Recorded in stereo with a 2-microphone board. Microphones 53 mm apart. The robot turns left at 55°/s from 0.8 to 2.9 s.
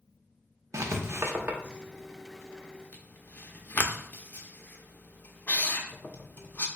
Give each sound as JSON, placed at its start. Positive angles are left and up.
{"t": 0.7, "sound": "writing", "side_deg": -65, "distance_m": 0.5}